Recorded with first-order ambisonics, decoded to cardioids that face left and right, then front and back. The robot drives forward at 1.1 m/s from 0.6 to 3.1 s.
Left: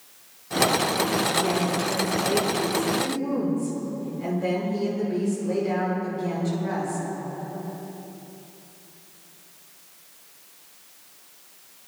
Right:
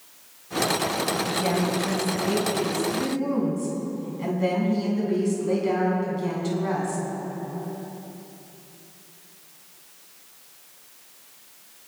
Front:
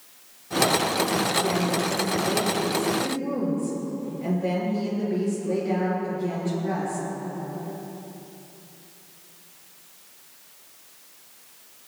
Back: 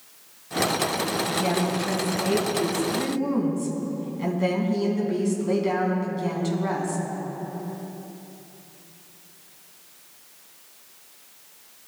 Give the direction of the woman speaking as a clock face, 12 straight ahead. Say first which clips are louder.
Left 1 dB, front 1 dB; 5 o'clock.